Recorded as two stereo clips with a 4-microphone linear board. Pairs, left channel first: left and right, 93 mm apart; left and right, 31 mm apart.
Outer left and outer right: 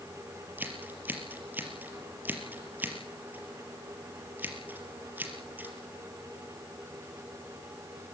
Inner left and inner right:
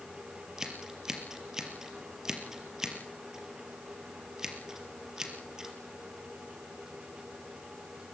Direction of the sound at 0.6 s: 20° right (ahead or behind).